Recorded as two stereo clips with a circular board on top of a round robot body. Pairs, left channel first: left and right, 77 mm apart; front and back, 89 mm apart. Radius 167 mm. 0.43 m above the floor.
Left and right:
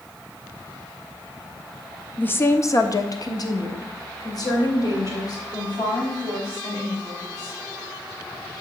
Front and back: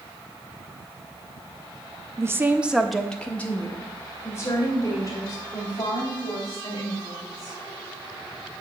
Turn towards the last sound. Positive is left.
turn(degrees=45)